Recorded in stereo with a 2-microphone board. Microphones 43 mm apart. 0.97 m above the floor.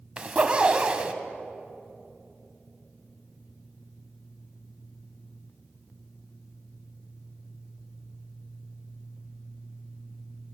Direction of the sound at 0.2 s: 25° right (ahead or behind).